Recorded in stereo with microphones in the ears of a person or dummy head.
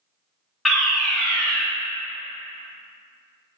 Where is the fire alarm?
5° right (ahead or behind), 1.0 m.